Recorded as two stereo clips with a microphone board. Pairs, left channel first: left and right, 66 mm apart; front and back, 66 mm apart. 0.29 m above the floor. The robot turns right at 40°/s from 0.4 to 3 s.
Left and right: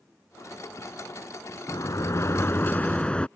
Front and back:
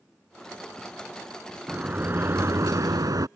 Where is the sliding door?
110° left; by 3.3 s 160° left.